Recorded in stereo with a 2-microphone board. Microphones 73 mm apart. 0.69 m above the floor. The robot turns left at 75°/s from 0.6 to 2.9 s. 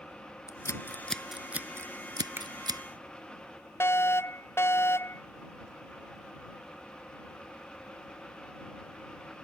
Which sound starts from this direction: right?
A finger snap, at 2.4 s.